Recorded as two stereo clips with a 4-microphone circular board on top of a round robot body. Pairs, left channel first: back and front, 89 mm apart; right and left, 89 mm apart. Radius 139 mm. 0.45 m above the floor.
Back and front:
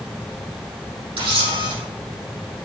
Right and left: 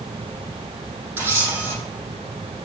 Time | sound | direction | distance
1.2 | a camera shutter | 25° left | 4.5 m